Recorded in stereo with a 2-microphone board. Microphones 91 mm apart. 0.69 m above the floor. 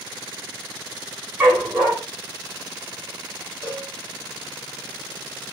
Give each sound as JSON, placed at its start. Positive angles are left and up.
{"t": 1.4, "sound": "a dog barking", "side_deg": -20, "distance_m": 1.9}
{"t": 3.6, "sound": "a cowbell", "side_deg": 50, "distance_m": 1.6}